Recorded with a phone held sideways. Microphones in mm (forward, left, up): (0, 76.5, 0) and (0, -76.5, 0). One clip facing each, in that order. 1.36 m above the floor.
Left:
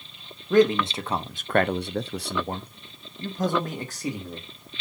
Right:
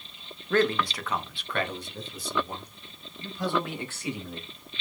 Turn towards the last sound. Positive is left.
turn(degrees=35)  # may be behind; listen again after turning